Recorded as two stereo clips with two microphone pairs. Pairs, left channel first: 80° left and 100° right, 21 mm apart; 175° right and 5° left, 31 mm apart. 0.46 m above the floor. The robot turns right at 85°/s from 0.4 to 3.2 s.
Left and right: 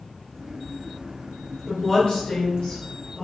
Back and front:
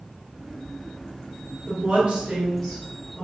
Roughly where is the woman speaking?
Ahead.